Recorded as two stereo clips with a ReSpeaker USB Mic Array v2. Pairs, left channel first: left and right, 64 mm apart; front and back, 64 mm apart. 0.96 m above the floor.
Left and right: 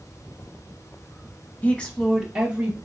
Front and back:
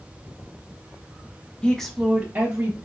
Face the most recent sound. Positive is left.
turn(degrees=-145)